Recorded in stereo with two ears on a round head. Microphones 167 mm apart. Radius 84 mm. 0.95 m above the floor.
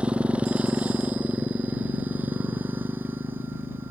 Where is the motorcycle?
5° right (ahead or behind); by 3.9 s 10° right (ahead or behind).